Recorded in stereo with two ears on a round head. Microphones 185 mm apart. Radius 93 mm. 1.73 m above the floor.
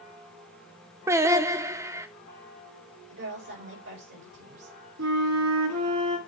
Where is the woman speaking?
55° right (ahead or behind), 5 m.